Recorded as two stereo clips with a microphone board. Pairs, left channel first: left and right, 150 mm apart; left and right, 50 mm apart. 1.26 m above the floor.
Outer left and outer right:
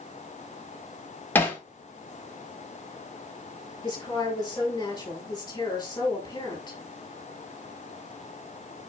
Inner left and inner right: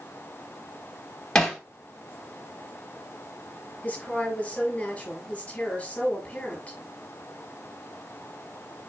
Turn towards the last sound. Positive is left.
turn(degrees=25)  # may be behind; listen again after turning